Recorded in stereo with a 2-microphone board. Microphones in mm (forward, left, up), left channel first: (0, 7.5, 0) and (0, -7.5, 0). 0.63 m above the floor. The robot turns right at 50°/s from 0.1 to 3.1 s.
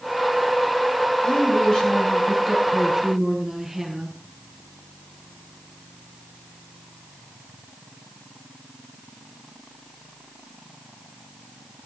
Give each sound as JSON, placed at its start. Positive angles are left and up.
{"t": 1.2, "sound": "a woman speaking", "azimuth_deg": 110, "distance_m": 8.0}